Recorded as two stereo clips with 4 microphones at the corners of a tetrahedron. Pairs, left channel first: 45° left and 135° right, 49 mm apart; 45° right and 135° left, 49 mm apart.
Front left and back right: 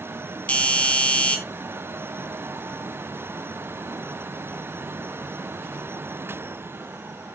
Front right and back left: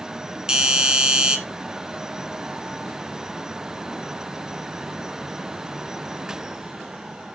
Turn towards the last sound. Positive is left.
turn(degrees=75)